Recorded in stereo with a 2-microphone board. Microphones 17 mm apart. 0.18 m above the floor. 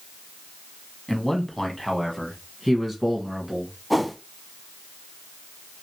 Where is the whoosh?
5° left (ahead or behind), 0.6 m.